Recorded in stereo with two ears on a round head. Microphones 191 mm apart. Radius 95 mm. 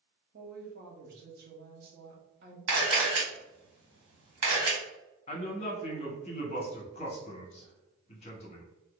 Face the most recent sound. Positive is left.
turn(degrees=30)  # may be behind; listen again after turning